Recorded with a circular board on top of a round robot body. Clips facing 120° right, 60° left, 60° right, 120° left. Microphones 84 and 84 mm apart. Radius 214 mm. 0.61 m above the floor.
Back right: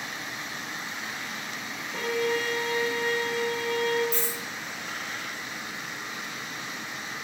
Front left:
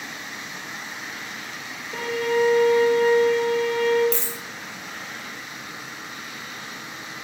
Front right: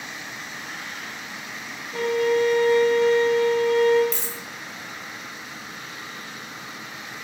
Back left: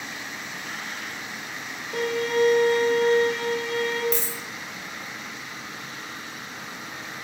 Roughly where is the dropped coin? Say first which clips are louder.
Front left 2 dB, back left 4 dB; ahead left.